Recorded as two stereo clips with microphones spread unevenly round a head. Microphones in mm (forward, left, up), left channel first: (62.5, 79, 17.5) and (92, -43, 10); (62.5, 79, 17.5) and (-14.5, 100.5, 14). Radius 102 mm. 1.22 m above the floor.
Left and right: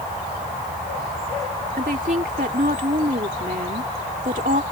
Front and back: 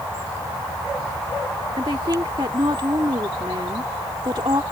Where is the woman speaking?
130° right.